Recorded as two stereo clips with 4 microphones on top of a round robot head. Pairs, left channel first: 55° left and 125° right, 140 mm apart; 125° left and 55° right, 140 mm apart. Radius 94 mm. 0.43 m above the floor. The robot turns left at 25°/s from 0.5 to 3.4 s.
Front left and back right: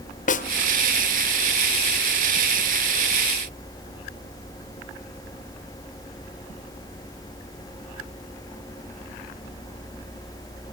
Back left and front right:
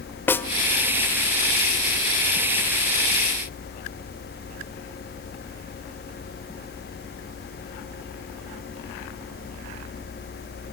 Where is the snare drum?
50° left, 1.2 m.